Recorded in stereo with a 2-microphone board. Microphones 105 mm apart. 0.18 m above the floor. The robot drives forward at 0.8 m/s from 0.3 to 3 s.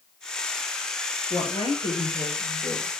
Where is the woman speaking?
60° left (ahead or behind), 3 m; by 2.9 s 50° left (ahead or behind), 3.5 m.